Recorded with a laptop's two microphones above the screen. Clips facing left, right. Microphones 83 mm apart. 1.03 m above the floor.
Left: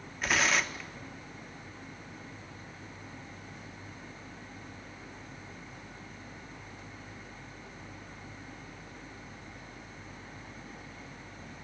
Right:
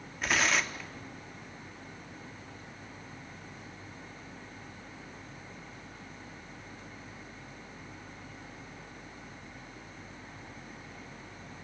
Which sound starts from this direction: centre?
Tearing paper, at 0.2 s.